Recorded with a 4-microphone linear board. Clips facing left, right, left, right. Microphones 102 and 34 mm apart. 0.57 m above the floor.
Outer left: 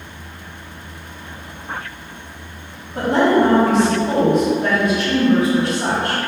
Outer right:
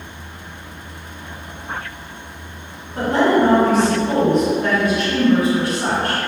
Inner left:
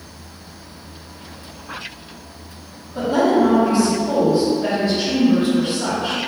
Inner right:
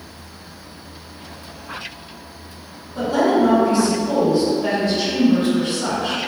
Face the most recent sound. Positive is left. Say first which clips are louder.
# outer left 1 dB, inner left 1 dB
turn(degrees=25)  # may be behind; listen again after turning